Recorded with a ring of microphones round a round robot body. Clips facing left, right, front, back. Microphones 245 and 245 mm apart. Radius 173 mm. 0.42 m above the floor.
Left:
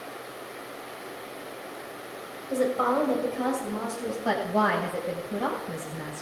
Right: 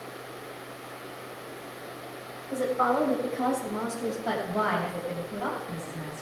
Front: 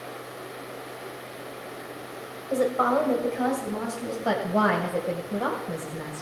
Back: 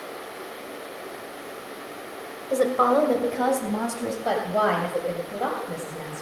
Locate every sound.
2.5 s a woman speaking: 130° left, 2 m; by 4.2 s 165° left, 4 m
4.2 s a woman speaking: 75° left, 2.5 m